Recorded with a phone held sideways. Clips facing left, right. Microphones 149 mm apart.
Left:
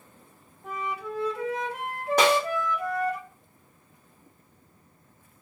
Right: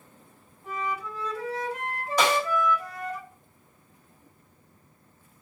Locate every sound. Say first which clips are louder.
0.6 s a flute: right 1 dB; 55° left (ahead or behind), 1.0 m
2.2 s a snare drum: left 3 dB; 60° left (ahead or behind), 1.8 m